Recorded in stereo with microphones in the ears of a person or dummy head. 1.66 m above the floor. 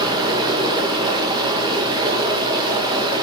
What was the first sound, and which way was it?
Running water, 25° right (ahead or behind).